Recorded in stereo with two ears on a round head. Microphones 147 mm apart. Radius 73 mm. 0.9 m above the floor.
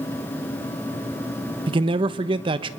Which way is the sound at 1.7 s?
30° right (ahead or behind).